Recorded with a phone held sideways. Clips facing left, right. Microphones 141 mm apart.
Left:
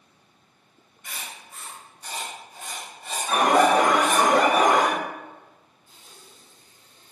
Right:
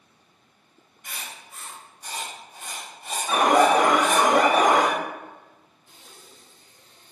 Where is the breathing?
80° right, 0.8 m.